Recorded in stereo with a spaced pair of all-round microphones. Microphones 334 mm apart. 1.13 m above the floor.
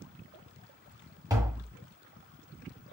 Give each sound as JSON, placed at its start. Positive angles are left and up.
{"t": 1.3, "sound": "tapping", "side_deg": -10, "distance_m": 1.4}